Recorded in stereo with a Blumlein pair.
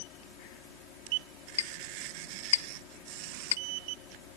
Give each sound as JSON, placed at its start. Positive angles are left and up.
{"t": 0.0, "sound": "a fan", "azimuth_deg": 40}
{"t": 1.6, "sound": "a clink", "azimuth_deg": 60}